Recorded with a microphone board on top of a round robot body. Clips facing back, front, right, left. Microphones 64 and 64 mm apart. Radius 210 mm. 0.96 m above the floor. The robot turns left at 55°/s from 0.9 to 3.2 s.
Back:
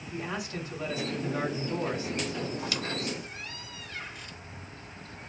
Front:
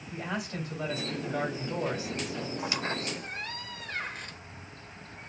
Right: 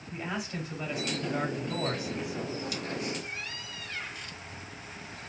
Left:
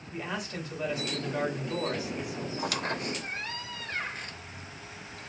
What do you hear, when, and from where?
0.1 s a man speaking: straight ahead, 3 m; by 2.5 s 90° right, 3 m
2.6 s a squeak: 75° left, 0.6 m; by 4.4 s 40° left, 0.6 m